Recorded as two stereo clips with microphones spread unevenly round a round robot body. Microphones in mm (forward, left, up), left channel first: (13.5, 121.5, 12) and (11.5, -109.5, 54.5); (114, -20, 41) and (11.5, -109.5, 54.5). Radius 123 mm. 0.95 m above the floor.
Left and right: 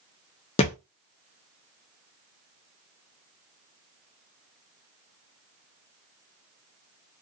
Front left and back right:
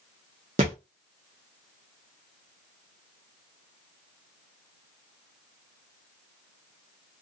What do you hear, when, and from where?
0.6 s a thud: 160° left, 0.7 m